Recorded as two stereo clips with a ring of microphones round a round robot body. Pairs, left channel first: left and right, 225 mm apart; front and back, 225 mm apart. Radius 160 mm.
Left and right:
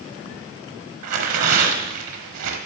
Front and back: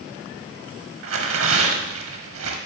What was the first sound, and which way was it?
Tearing paper, 130° right.